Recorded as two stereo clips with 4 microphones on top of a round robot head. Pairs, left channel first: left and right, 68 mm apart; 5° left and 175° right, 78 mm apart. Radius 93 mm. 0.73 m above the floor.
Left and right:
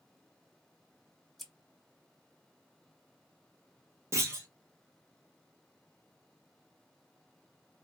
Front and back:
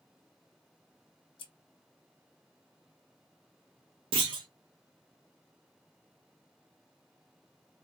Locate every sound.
1.4 s scissors: straight ahead, 0.7 m
4.1 s a clunk: 150° right, 0.6 m